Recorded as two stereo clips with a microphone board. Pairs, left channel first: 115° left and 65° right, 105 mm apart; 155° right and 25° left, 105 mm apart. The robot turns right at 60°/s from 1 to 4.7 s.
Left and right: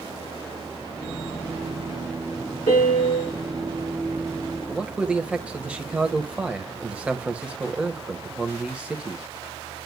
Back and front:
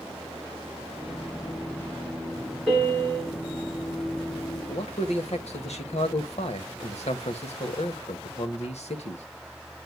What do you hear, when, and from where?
2.7 s a piano: 120° left, 8.5 m; by 3.4 s 160° left, 8.5 m
4.7 s a man speaking: 145° right, 1.3 m